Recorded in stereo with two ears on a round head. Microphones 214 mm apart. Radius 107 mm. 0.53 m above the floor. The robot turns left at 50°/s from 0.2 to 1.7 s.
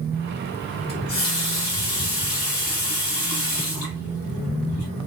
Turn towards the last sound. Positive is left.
turn(degrees=110)